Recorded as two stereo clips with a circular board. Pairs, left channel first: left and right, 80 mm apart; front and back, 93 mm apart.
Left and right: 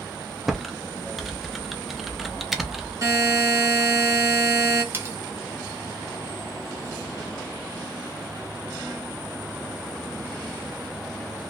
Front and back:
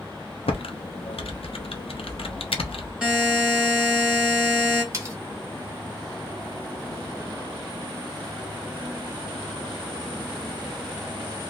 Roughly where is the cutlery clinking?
Behind right.